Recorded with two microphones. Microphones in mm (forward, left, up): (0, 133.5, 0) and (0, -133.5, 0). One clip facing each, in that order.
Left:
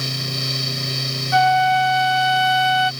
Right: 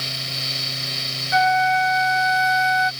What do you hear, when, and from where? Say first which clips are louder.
1.3 s a flute: left 3 dB; 20° right (ahead or behind)